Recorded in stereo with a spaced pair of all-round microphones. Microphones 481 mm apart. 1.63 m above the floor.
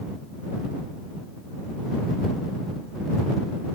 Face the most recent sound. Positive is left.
No sound to turn to.